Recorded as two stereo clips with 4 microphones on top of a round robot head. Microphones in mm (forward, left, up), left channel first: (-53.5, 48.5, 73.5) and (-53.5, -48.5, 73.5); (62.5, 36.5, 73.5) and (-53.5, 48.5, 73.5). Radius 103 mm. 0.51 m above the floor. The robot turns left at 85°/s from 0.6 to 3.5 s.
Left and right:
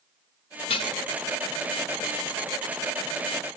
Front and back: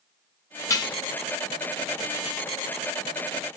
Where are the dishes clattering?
60° left, 1.7 m; by 1.0 s 35° left, 1.7 m.